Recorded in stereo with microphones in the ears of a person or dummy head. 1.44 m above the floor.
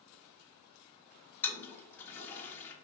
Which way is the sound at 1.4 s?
15° left (ahead or behind).